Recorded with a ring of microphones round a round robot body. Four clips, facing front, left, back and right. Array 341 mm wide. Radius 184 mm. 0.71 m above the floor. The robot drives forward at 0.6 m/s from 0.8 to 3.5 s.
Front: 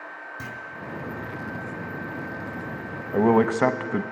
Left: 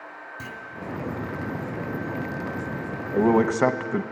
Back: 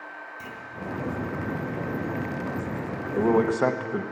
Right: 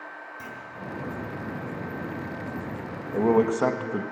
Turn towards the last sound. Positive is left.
turn(degrees=40)